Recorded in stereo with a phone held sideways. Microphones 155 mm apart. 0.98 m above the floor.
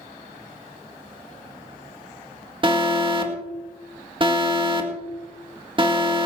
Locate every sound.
2.6 s an alarm: 35° right (ahead or behind), 1.8 m